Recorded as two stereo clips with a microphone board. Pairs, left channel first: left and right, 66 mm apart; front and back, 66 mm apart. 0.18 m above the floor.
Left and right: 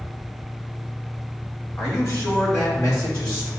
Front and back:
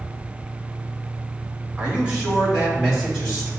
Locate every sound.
1.8 s a man speaking: 110° left, 1.9 m; by 3.5 s 105° left, 3.5 m